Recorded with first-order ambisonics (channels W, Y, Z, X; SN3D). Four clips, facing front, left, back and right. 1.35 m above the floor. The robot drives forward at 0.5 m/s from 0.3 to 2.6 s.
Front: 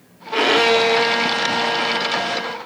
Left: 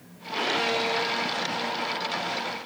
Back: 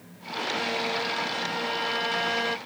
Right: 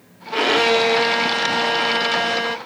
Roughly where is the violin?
Ahead right.